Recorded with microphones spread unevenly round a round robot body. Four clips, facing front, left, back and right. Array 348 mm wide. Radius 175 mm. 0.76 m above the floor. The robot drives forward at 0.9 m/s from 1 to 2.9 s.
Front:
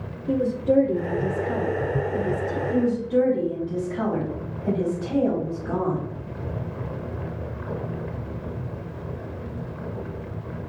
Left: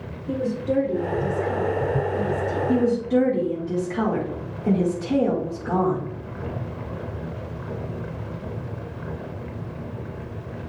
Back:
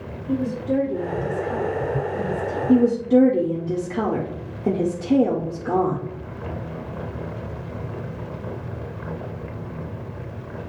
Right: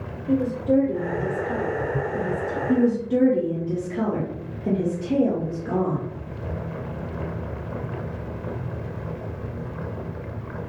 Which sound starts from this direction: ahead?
A woman speaking, at 0.3 s.